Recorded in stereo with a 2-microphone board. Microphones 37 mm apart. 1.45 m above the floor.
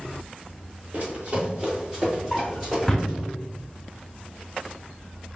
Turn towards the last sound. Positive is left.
turn(degrees=15)  # may be behind; listen again after turning